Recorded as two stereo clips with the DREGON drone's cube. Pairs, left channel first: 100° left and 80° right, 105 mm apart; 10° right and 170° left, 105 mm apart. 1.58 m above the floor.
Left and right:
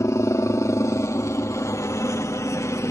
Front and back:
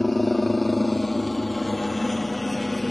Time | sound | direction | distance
0.0 | a helicopter | 75° left | ?